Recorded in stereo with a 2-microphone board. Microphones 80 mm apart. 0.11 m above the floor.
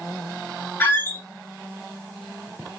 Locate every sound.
0.8 s a squeak: 25° left (ahead or behind), 1.2 m